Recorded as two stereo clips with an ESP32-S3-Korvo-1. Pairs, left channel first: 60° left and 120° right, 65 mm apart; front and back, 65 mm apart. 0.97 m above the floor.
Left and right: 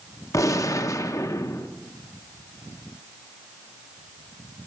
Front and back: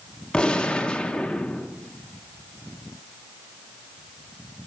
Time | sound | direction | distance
0.3 | a gunshot | 75° left | 0.6 m